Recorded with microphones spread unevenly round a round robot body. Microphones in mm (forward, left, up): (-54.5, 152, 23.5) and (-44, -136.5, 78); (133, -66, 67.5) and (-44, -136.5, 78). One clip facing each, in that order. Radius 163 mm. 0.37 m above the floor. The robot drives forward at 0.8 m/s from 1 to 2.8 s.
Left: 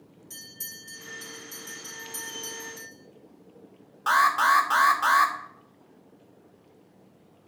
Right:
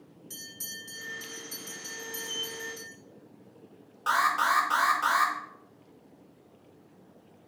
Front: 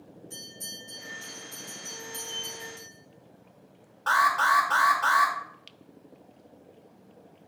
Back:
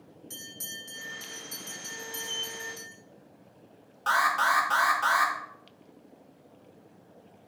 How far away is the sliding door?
About 1.4 m.